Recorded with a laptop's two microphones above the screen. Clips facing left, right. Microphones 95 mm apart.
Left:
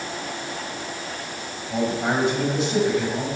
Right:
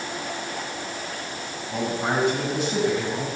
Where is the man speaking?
25° left (ahead or behind), 5.5 m.